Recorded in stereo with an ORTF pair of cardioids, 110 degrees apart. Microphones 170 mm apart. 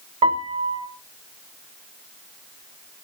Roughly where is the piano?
Ahead right.